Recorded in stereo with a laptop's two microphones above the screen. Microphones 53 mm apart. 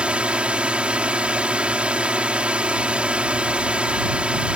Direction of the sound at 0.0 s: 20° right (ahead or behind).